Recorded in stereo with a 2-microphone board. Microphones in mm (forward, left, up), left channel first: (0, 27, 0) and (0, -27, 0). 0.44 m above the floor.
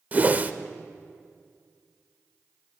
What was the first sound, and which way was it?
A whoosh, 30° right (ahead or behind).